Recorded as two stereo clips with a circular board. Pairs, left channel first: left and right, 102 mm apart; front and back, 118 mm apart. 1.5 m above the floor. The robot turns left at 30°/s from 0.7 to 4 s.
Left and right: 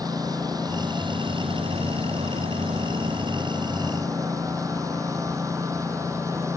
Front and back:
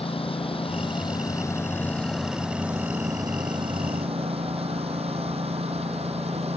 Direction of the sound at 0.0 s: 40° right.